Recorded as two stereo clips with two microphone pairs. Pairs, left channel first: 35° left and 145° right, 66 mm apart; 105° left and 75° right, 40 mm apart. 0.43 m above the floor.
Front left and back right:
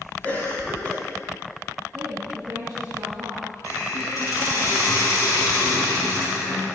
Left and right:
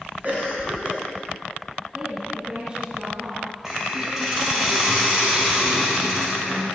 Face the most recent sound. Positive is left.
turn(degrees=5)